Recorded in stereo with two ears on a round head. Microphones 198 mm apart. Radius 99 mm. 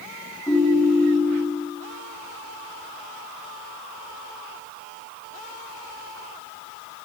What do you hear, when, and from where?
0.5 s a ringtone: 15° left (ahead or behind), 5 m